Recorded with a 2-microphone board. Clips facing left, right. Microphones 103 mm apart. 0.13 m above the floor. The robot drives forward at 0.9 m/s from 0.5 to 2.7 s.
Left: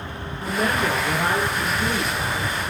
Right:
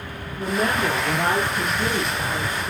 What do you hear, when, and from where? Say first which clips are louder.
0.4 s a woman speaking: right 1 dB; 35° right (ahead or behind), 6.5 m; by 2.7 s 50° right (ahead or behind), 5 m